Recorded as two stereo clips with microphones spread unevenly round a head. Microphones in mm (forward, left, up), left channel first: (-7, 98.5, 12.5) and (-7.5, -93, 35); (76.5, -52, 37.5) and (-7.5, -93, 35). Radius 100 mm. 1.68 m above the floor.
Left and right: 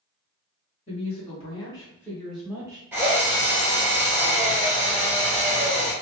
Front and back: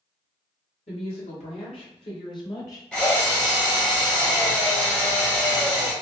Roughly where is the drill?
Ahead right.